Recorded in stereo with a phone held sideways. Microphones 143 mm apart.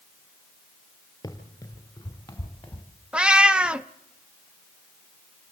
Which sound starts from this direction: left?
Running footsteps, at 1.2 s.